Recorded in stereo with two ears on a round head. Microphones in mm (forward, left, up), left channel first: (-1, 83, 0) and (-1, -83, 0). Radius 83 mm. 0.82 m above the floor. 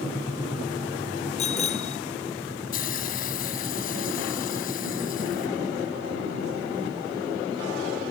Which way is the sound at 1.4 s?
35° left (ahead or behind).